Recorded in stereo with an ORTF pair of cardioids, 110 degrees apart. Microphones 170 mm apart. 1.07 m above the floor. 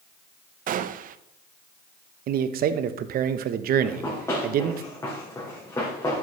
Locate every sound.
0.7 s a gunshot: 55° right, 0.6 m
2.3 s a man speaking: 60° right, 1.0 m
3.8 s running footsteps: 20° left, 5.5 m